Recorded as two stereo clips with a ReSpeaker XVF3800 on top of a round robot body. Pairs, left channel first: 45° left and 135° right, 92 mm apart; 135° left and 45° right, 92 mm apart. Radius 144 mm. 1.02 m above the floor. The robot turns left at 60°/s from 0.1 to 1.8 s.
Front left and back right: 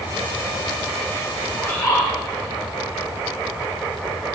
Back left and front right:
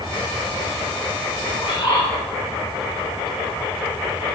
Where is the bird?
120° left, 4 m; by 2.1 s 105° left, 4 m.